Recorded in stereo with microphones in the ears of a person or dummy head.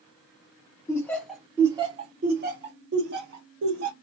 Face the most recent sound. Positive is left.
turn(degrees=-75)  # may be behind; listen again after turning